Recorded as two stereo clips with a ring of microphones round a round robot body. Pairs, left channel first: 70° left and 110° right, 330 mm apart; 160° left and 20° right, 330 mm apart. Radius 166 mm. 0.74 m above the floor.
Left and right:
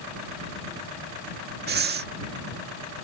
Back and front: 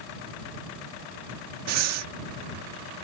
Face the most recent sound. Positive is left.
turn(degrees=-55)